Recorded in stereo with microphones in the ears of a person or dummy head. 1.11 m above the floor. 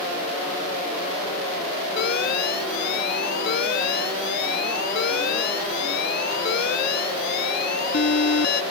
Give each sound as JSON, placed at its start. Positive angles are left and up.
{"t": 2.0, "sound": "an alarm", "side_deg": 55}